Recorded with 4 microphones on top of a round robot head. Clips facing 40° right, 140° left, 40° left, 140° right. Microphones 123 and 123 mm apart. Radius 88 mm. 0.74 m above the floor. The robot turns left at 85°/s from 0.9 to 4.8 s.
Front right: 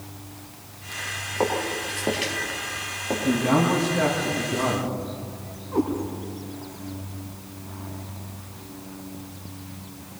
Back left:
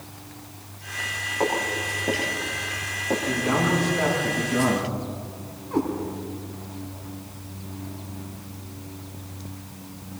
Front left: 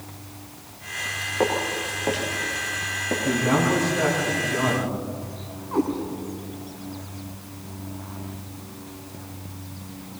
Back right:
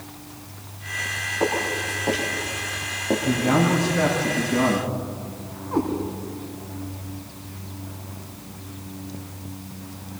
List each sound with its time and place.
1.4 s footsteps: 25° left, 6.5 m; by 3.6 s 170° right, 5.5 m
3.2 s a man speaking: 75° right, 8.5 m; by 4.9 s 150° left, 8.5 m
5.7 s a cat meowing: 135° left, 4.5 m